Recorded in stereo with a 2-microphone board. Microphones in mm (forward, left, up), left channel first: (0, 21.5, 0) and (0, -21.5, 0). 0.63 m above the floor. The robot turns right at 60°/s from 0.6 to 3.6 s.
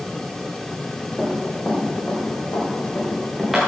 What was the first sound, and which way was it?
Running footsteps, 5° left (ahead or behind).